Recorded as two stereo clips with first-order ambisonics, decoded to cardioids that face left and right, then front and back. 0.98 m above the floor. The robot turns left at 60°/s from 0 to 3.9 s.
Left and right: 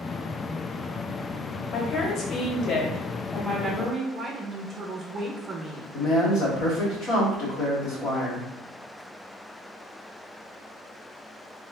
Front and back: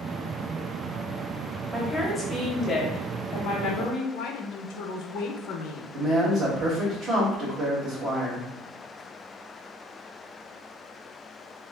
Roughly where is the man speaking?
Behind left.